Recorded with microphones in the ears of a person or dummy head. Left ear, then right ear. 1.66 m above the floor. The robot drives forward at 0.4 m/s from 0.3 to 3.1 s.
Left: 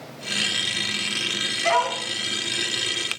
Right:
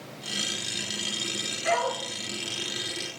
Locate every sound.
1.6 s a dog barking: 55° left (ahead or behind), 5 m